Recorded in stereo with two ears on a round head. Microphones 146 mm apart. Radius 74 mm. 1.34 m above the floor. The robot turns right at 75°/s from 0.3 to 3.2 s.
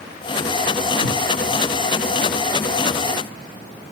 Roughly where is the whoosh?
Right.